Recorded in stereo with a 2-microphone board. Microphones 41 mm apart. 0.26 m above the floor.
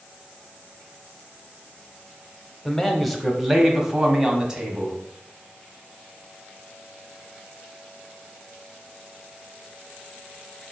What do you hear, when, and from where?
2.6 s a man speaking: 10° left (ahead or behind), 1.0 m; by 5.0 s 20° right (ahead or behind), 1.8 m